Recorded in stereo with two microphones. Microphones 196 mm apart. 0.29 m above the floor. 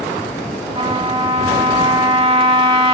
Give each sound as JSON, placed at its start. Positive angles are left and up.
{"t": 0.8, "sound": "a trumpet", "side_deg": -30, "distance_m": 0.6}